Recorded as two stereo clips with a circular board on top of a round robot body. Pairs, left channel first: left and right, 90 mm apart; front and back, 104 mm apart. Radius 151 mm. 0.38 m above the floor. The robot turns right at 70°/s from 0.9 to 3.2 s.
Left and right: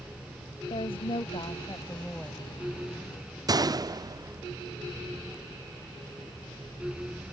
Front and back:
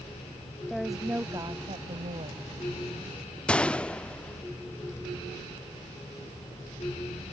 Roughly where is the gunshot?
Right.